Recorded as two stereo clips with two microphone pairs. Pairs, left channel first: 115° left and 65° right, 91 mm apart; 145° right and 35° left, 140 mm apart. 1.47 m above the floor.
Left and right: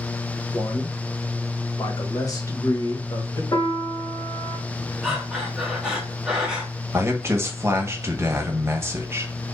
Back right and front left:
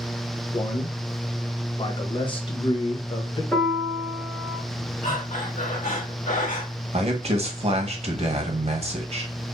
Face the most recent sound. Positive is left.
turn(degrees=0)